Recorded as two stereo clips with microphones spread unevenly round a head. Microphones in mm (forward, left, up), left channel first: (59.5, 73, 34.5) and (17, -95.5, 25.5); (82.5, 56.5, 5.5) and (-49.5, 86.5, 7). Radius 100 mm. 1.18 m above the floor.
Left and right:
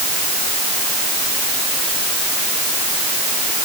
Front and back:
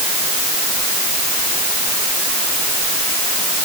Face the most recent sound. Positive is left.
No sound to turn to.